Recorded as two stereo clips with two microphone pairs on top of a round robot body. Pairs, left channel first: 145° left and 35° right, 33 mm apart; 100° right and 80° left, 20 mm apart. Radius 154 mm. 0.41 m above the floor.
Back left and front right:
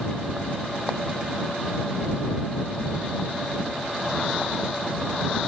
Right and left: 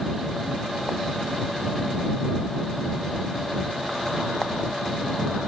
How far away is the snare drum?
I don't hear a snare drum.